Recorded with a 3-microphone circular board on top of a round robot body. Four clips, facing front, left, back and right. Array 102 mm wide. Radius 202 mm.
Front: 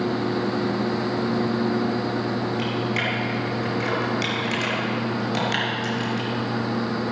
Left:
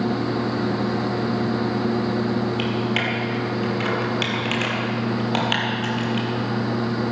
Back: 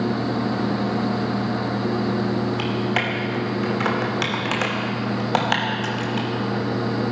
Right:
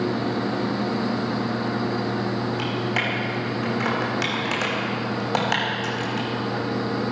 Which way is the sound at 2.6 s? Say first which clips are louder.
Left 2 dB, back 2 dB; 165° right.